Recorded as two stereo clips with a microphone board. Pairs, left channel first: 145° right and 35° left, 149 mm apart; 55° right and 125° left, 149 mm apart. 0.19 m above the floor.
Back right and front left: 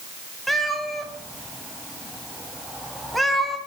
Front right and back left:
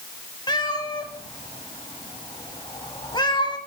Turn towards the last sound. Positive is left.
turn(degrees=-55)